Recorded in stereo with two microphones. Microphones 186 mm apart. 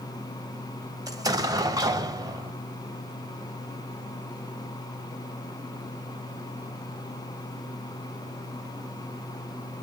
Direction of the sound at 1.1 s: 20° right (ahead or behind).